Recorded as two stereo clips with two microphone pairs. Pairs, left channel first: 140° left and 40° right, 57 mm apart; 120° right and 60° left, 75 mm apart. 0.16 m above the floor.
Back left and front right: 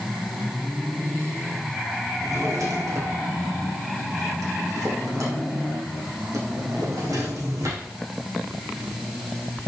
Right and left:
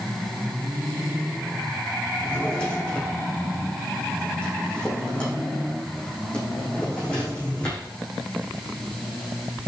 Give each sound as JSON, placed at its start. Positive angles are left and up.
{"t": 2.2, "sound": "a drawer", "azimuth_deg": -45, "distance_m": 5.0}